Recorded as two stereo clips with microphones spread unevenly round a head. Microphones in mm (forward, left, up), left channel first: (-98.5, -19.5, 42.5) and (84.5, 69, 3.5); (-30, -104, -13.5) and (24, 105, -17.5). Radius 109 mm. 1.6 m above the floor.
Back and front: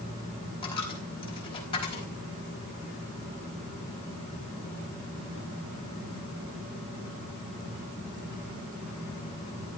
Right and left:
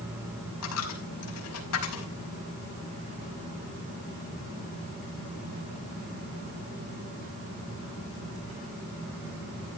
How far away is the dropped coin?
About 5.5 m.